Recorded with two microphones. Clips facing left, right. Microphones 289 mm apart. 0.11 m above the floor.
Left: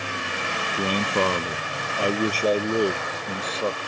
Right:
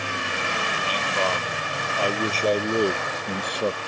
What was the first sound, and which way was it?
A man speaking, 55° left (ahead or behind).